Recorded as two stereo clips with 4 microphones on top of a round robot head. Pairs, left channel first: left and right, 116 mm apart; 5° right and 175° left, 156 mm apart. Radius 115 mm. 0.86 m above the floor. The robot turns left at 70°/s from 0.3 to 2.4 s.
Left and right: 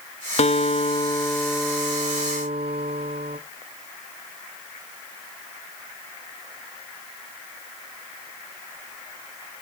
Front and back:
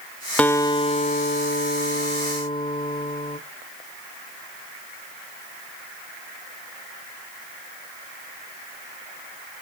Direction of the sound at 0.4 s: 80° left.